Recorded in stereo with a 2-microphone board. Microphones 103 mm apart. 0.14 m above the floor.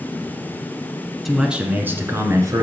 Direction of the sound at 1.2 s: Centre (ahead or behind).